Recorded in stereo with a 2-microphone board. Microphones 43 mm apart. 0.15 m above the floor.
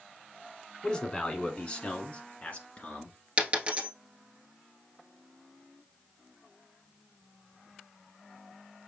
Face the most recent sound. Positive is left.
turn(degrees=-30)  # may be behind; listen again after turning